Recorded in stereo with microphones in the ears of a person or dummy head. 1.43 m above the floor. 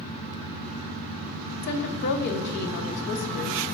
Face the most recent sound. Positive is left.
turn(degrees=55)  # may be behind; listen again after turning